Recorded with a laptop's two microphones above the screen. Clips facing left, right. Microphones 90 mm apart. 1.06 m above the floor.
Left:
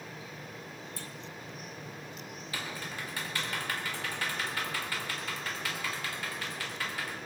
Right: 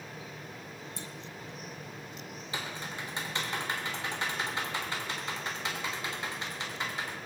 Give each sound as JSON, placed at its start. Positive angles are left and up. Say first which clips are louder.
{"t": 1.0, "sound": "a clunk", "louder": "right 1 dB", "side_deg": -20, "distance_m": 0.7}
{"t": 2.5, "sound": "typing on a keyboard", "louder": "right 1 dB", "side_deg": -25, "distance_m": 3.5}